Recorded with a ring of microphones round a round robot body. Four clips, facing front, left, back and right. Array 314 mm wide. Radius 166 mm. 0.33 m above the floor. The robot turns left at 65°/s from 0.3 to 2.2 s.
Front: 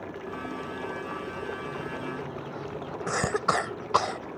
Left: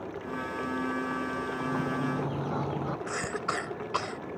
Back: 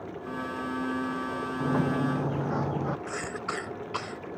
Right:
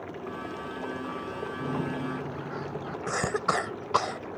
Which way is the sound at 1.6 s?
160° right.